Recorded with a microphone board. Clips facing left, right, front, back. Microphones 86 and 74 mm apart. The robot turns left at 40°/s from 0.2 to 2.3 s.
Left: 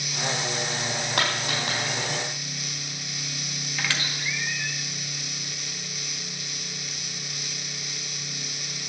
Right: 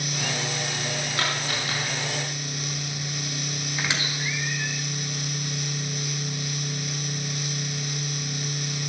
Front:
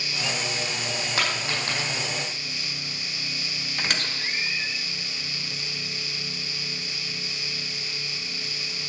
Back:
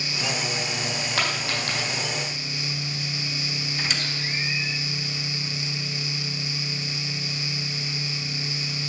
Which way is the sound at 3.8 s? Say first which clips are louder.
Even, front 3 dB; 25° right.